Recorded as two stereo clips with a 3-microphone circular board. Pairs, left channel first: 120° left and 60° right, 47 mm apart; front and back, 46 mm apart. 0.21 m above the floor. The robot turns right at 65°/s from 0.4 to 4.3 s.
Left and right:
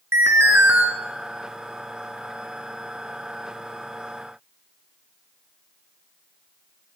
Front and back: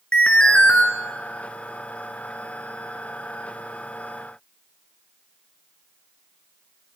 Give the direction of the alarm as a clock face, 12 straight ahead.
2 o'clock.